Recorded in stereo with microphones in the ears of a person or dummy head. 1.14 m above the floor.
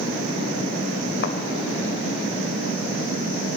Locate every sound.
1.2 s a thud: 60° left (ahead or behind), 1.8 m